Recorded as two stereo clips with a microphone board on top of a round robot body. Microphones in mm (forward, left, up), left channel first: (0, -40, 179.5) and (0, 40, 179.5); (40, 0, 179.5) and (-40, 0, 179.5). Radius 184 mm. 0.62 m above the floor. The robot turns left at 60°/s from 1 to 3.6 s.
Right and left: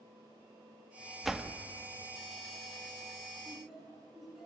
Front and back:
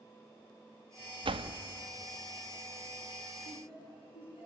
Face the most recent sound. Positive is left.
turn(degrees=5)